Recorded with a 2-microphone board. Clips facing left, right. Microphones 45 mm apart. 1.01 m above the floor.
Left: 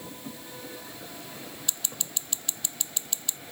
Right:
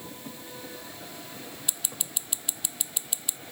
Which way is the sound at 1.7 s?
15° right (ahead or behind).